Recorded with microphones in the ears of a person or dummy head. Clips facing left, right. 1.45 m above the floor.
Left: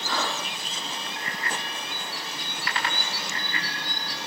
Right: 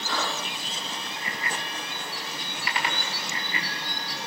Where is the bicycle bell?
15° right (ahead or behind), 8.5 m.